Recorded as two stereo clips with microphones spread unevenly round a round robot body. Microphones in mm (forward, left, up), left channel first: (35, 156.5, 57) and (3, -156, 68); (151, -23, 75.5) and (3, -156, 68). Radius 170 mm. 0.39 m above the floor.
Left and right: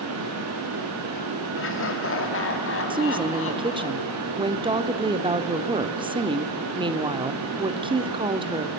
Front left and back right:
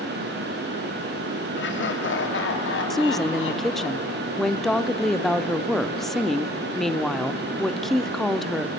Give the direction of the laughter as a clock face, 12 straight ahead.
11 o'clock.